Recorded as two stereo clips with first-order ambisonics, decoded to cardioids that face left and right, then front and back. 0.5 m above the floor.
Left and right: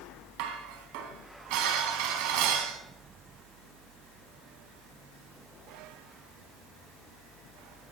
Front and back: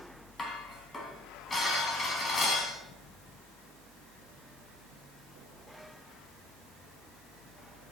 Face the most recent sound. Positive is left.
turn(degrees=-75)